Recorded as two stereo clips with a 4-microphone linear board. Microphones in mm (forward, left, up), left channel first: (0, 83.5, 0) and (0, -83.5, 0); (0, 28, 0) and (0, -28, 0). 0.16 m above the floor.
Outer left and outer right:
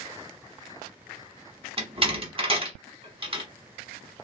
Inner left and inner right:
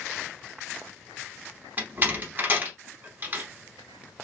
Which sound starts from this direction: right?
A door slam, at 1.8 s.